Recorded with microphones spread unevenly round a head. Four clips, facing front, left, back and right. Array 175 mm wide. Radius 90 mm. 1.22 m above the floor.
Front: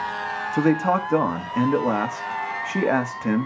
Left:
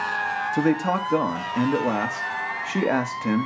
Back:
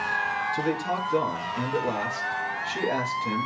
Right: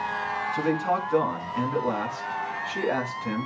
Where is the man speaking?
35° left, 2.5 m.